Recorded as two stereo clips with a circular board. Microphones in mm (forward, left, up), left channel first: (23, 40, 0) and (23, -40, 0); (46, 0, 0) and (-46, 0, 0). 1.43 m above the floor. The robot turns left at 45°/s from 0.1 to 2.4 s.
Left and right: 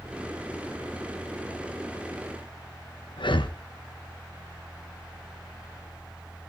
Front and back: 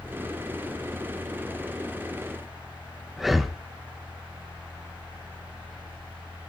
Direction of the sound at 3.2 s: 95° left.